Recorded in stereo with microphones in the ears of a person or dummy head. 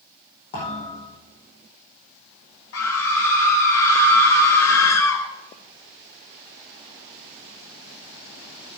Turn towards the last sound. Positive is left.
turn(degrees=75)  # may be behind; listen again after turning